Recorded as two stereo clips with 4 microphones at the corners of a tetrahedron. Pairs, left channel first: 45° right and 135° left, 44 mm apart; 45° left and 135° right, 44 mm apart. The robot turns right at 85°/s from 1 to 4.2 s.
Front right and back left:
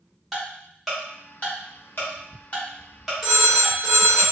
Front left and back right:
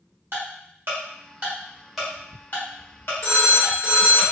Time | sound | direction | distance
0.3 | ticking | 135° right | 1.3 m
3.2 | a phone ringing | 50° left | 1.3 m